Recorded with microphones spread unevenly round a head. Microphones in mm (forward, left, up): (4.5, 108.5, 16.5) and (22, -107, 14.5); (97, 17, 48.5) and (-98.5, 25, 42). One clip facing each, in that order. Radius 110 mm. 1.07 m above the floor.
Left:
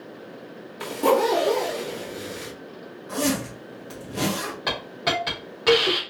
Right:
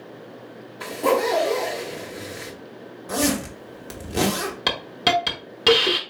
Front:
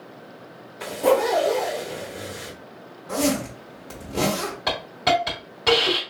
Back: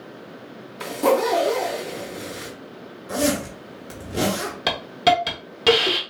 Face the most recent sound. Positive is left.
turn(degrees=-125)